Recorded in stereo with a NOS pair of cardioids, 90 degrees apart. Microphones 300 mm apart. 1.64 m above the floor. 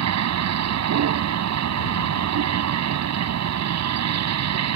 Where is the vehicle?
60° right.